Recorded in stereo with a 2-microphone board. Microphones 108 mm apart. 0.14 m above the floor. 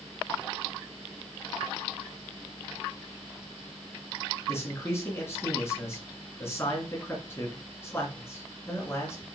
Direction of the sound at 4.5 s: 25° left (ahead or behind).